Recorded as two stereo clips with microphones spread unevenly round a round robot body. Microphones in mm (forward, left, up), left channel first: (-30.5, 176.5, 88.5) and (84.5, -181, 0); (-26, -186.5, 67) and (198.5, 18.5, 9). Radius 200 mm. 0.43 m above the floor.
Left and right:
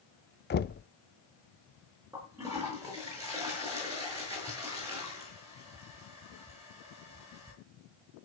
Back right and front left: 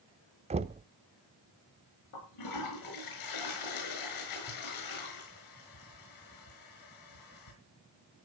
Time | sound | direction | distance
0.5 | knocking | 45° left | 0.7 m
2.1 | a toilet flushing | 155° right | 7 m